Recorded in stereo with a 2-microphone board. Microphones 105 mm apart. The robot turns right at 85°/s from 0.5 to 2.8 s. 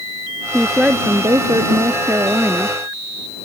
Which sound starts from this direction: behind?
A woman speaking, at 0.5 s.